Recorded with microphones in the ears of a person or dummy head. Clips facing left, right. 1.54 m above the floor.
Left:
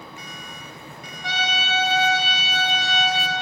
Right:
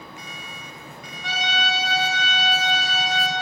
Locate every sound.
1.2 s a trumpet: 65° right (ahead or behind), 3 m